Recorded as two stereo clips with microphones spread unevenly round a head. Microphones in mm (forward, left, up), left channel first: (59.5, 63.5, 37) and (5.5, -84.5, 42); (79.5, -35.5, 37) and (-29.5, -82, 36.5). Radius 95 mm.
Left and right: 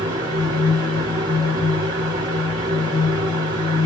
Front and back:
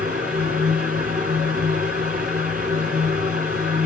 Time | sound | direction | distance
0.0 | a fan | straight behind | 3.5 m